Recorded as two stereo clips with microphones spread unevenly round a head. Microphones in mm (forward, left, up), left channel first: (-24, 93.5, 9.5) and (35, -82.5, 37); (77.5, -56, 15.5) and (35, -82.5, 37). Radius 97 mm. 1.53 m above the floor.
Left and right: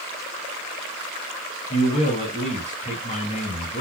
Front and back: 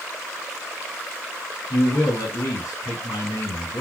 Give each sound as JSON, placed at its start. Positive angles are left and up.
{"t": 1.7, "sound": "a man speaking", "azimuth_deg": 60, "distance_m": 2.5}